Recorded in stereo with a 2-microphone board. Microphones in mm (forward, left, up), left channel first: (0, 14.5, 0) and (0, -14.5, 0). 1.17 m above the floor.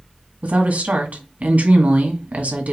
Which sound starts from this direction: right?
A woman speaking, at 0.4 s.